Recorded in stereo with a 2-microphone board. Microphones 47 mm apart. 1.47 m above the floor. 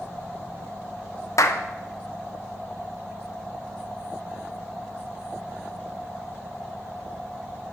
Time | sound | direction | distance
1.4 | a clap | 75° left (ahead or behind) | 0.7 m